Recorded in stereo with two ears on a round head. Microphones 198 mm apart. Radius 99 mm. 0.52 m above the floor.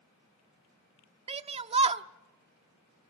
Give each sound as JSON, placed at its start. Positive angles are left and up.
{"t": 1.3, "sound": "a shout", "side_deg": -25, "distance_m": 0.7}